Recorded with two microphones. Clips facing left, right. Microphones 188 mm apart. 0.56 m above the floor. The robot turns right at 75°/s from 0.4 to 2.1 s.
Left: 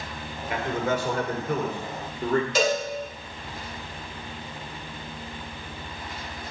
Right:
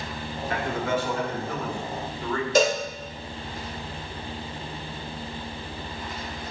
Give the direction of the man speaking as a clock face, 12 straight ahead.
12 o'clock.